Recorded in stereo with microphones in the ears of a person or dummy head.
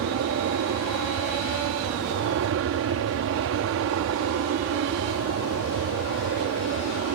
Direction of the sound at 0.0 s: 65° right (ahead or behind).